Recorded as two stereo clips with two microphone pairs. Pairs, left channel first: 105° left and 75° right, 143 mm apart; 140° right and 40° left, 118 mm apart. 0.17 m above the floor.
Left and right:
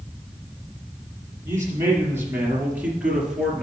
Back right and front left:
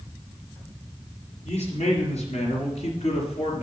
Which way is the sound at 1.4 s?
140° right.